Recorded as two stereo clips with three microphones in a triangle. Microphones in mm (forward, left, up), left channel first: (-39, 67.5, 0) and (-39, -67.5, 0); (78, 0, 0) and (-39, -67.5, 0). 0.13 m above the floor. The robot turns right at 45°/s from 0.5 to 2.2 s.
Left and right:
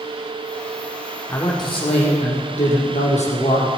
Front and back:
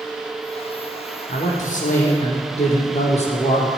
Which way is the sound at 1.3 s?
20° left.